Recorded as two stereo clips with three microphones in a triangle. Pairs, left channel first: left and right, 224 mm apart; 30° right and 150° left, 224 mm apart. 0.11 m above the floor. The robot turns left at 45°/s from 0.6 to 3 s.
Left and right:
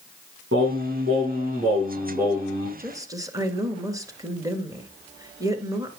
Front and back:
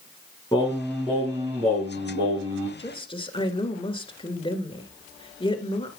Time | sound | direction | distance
0.5 | singing | 100° right | 7 m
2.8 | a woman speaking | 30° right | 1.5 m